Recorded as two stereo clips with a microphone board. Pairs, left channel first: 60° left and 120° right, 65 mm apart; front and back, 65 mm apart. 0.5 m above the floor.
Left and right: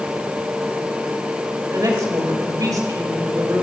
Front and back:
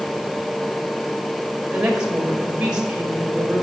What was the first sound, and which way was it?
A woman speaking, 105° right.